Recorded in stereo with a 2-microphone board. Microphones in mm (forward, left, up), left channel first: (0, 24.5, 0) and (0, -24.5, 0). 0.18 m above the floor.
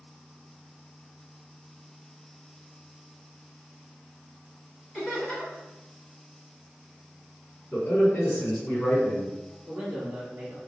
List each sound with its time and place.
4.9 s laughter: 15° left (ahead or behind), 1.3 m
7.7 s a man speaking: 35° left (ahead or behind), 1.5 m
9.7 s a man speaking: 15° right (ahead or behind), 1.1 m